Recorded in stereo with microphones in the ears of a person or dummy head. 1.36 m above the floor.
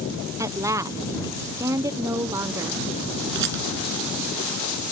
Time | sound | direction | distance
0.4 | a woman speaking | 15° right (ahead or behind) | ?
3.4 | a rattle | 60° right (ahead or behind) | ?